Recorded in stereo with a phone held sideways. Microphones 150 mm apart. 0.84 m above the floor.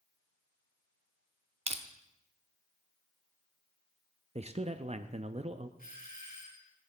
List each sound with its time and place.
1.7 s crushing: 45° right (ahead or behind), 1.0 m
4.3 s a man speaking: 45° right (ahead or behind), 0.7 m
5.8 s a doorbell: 80° left, 5 m